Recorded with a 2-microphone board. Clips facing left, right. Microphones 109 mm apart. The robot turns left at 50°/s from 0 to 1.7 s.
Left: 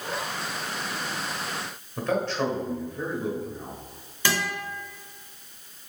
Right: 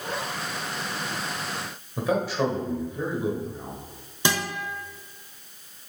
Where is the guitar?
20° right (ahead or behind), 1.3 m.